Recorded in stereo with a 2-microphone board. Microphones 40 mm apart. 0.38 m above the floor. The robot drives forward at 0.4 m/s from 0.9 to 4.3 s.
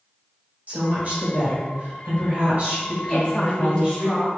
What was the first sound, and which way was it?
A woman speaking, 40° right (ahead or behind).